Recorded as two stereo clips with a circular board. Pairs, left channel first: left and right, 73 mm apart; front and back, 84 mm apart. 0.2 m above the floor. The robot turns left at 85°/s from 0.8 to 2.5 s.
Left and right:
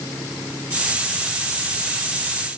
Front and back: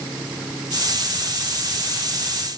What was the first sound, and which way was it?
Only background noise.